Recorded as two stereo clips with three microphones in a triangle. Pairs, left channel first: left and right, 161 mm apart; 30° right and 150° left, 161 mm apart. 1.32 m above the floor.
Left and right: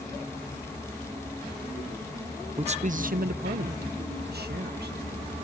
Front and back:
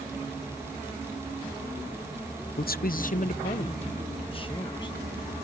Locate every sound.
2.6 s a man speaking: 40° right; by 5.0 s 95° right